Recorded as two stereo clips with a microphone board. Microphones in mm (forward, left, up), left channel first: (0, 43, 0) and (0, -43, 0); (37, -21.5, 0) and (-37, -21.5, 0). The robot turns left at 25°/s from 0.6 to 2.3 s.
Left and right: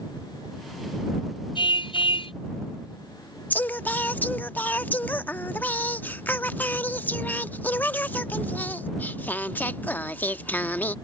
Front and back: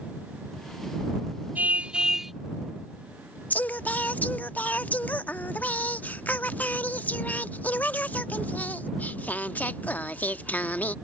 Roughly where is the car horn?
Left.